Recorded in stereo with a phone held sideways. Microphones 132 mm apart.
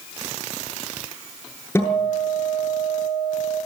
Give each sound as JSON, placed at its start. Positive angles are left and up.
{"t": 1.8, "sound": "a guitar", "side_deg": 20, "distance_m": 8.0}